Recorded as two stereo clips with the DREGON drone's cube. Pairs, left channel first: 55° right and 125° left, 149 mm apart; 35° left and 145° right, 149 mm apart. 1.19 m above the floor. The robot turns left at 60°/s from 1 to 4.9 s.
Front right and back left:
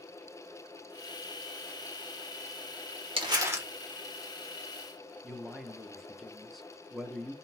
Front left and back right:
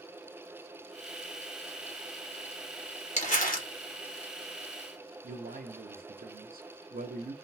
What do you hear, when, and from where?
3.2 s crumpling: 75° left, 1.4 m; by 3.7 s 45° left, 1.4 m
5.2 s a man speaking: 145° right, 0.8 m